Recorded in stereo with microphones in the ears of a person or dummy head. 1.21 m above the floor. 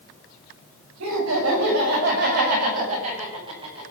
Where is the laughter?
65° right (ahead or behind), 6.5 m; by 3.8 s 25° right (ahead or behind), 6 m.